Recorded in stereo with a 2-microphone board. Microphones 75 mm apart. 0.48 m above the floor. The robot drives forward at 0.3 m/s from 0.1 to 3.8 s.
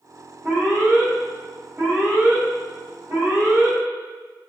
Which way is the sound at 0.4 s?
35° right (ahead or behind).